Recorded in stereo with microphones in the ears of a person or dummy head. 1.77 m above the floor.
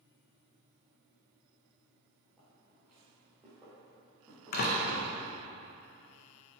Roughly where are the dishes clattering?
No dishes clattering in this recording.